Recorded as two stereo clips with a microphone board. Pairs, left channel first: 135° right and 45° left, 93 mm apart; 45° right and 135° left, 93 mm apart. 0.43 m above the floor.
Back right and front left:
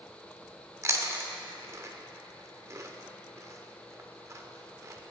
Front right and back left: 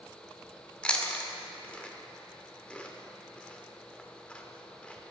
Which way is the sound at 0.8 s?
20° left.